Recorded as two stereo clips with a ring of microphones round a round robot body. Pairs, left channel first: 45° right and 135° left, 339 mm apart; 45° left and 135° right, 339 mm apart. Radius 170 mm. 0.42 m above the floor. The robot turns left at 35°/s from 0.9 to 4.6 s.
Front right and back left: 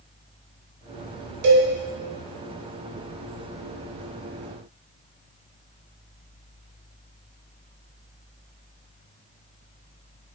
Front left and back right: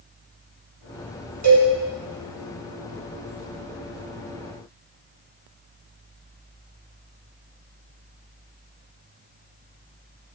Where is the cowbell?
155° left, 0.9 m; by 1.7 s 145° left, 0.9 m.